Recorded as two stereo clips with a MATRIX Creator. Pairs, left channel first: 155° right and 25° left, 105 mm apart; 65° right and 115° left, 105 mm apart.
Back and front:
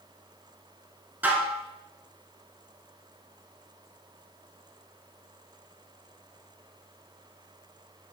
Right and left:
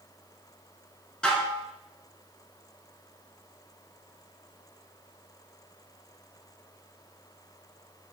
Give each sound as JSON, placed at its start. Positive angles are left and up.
{"t": 1.2, "sound": "dishes clattering", "azimuth_deg": -5, "distance_m": 0.8}